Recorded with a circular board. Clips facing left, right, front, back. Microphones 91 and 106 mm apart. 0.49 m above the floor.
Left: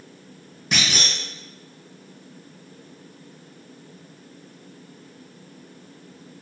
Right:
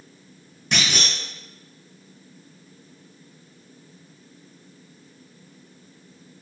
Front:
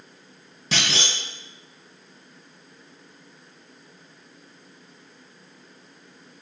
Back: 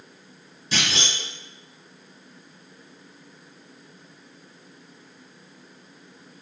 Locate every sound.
0.7 s a clunk: 5° left, 0.6 m